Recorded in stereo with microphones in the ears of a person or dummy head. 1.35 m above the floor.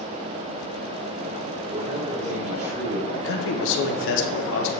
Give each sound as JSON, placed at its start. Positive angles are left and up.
{"t": 1.7, "sound": "a man speaking", "side_deg": -40, "distance_m": 3.5}
{"t": 3.1, "sound": "a man speaking", "side_deg": 70, "distance_m": 1.1}